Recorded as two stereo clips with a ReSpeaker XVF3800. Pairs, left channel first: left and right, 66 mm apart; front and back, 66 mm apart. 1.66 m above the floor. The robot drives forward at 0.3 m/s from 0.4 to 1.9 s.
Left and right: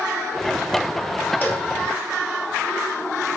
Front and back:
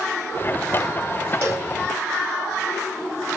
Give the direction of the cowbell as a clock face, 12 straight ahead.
7 o'clock.